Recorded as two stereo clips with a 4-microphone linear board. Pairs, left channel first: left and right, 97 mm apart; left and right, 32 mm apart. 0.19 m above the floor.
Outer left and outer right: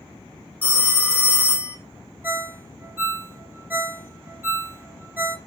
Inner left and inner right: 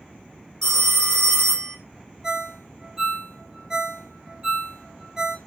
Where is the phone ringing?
15° left (ahead or behind), 0.9 m.